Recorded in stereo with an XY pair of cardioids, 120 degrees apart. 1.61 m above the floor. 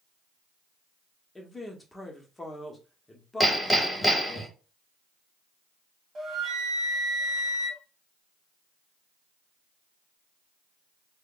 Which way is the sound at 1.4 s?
15° left.